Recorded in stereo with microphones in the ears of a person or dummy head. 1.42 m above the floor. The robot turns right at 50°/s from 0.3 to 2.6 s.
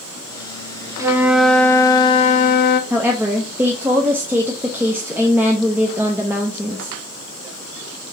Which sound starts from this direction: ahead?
A flute, at 1.0 s.